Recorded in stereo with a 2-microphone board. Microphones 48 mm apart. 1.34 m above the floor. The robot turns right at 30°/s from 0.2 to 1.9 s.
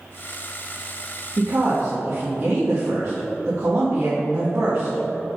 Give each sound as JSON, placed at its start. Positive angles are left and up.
{"t": 1.4, "sound": "a woman speaking", "side_deg": -80, "distance_m": 1.5}